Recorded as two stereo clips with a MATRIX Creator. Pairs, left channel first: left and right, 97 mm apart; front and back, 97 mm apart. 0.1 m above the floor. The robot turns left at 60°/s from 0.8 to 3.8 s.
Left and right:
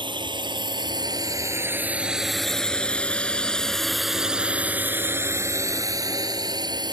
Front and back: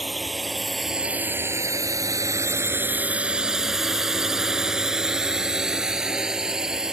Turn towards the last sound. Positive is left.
turn(degrees=-100)